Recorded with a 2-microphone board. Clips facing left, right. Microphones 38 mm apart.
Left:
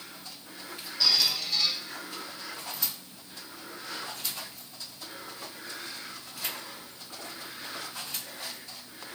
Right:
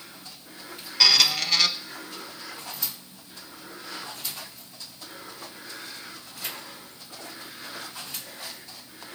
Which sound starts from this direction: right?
A squeak, at 1.0 s.